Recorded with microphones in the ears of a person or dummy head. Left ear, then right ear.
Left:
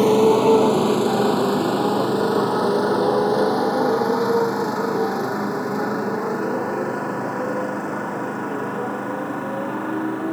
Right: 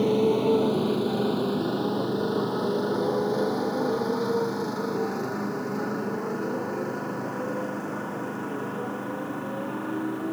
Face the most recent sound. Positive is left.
turn(degrees=25)  # may be behind; listen again after turning